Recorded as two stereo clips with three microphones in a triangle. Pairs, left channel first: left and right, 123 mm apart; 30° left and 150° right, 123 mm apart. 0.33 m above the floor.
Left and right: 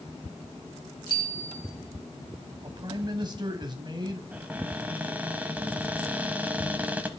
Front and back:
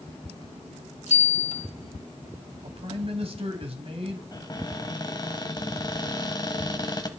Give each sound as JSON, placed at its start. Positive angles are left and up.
{"t": 1.1, "sound": "a bicycle bell", "azimuth_deg": 40, "distance_m": 7.5}
{"t": 2.6, "sound": "a man speaking", "azimuth_deg": -135, "distance_m": 2.5}
{"t": 4.3, "sound": "a cupboard door", "azimuth_deg": -15, "distance_m": 1.3}